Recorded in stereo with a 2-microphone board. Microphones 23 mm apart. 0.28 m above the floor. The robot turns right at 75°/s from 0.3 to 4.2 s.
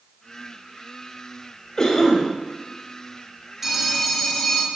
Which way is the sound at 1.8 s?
85° left.